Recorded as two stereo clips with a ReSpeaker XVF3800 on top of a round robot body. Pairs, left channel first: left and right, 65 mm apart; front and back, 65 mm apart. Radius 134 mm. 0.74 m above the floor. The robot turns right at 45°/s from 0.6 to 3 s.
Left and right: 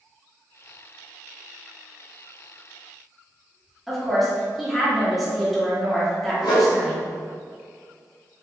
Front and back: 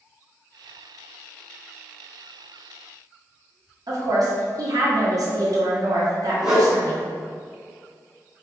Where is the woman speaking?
Straight behind, 1.9 m.